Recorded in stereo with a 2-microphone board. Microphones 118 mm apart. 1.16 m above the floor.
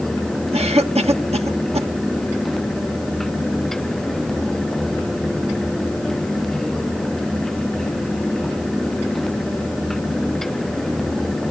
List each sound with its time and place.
0.5 s a cough: 65° right (ahead or behind), 1.6 m